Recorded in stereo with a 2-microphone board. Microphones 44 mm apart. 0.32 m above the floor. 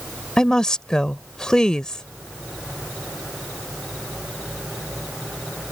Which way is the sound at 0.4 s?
15° left (ahead or behind).